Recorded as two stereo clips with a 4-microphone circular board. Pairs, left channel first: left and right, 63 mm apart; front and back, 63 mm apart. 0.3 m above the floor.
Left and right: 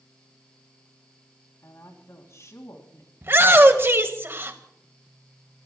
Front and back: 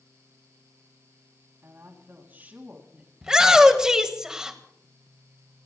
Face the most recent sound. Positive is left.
turn(degrees=-105)